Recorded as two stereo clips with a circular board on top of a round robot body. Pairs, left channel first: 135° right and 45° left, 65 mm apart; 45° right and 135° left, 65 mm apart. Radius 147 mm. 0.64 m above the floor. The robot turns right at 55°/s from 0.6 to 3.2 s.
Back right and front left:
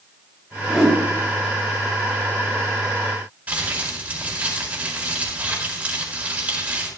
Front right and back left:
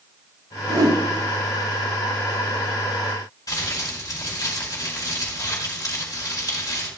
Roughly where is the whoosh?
Behind left.